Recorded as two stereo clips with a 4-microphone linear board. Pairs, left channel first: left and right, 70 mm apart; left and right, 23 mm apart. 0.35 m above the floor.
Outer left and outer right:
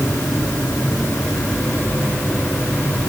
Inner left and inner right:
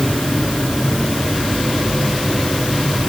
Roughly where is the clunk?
I don't hear a clunk.